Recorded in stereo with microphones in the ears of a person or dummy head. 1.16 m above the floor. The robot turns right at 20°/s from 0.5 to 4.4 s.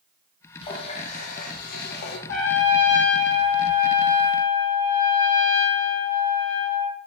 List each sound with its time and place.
0.6 s a running tap: 35° left, 0.7 m; by 2.2 s 65° left, 0.7 m
2.3 s a trumpet: 110° left, 1.1 m; by 7.0 s 155° left, 1.1 m